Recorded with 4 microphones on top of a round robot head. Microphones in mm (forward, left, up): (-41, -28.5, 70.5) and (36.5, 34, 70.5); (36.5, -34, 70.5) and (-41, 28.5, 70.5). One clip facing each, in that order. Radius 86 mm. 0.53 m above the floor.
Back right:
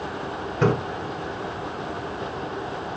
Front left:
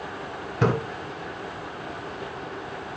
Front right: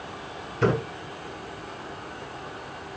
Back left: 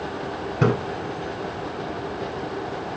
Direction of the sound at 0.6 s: 115° left.